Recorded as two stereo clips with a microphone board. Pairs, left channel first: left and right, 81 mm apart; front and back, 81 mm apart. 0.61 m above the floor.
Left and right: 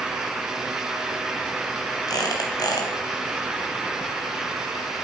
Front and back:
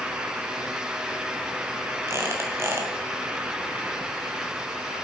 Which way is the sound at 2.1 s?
125° left.